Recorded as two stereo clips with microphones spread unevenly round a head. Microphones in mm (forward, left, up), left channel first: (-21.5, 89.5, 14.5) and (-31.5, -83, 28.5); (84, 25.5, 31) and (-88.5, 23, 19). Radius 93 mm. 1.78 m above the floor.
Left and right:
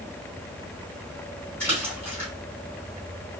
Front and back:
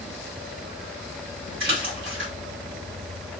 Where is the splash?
170° left, 2.5 m.